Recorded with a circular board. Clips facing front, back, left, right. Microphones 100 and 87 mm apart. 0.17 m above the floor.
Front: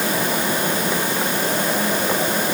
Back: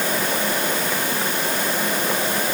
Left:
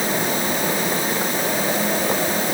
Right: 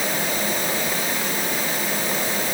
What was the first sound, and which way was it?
Only background noise.